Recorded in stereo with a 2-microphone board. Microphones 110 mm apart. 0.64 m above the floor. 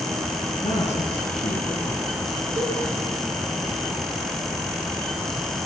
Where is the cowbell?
35° left (ahead or behind), 9 m.